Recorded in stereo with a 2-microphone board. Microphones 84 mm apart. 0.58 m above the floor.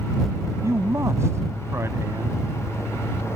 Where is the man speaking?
35° right (ahead or behind).